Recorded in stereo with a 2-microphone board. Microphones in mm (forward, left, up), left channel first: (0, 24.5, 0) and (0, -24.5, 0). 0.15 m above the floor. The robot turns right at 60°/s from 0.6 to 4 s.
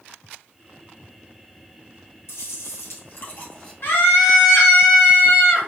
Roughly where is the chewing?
Left.